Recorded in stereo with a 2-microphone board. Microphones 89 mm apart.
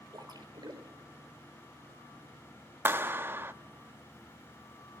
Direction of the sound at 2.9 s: 25° right (ahead or behind).